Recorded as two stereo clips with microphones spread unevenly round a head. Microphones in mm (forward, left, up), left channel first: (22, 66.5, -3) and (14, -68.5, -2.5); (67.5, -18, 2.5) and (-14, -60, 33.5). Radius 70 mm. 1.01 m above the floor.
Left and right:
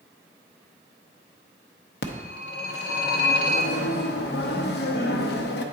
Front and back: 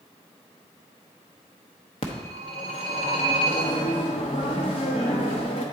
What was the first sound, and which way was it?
A phone ringing, 80° left.